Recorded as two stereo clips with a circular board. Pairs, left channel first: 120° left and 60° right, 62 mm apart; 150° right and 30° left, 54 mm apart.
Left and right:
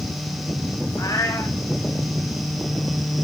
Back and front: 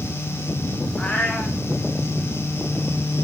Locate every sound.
1.0 s a cat meowing: 140° left, 2.5 m